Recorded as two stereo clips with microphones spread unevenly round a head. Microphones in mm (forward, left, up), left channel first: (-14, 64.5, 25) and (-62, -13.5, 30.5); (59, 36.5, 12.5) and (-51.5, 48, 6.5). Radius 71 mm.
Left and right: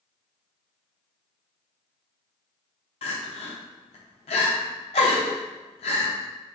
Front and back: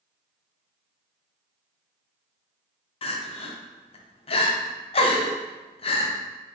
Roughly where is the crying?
Ahead left.